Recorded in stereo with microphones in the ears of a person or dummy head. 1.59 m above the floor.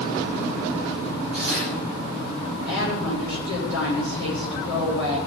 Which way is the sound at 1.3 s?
55° left (ahead or behind).